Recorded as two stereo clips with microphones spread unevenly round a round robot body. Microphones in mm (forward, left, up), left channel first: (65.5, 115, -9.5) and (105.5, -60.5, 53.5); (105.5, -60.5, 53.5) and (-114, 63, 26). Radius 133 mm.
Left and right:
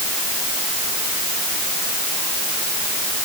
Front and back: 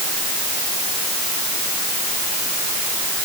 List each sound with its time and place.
Only background noise.